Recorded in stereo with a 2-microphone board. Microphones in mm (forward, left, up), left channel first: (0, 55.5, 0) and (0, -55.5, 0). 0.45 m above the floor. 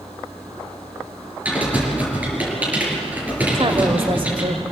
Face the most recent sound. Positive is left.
turn(degrees=-50)  # may be behind; listen again after turning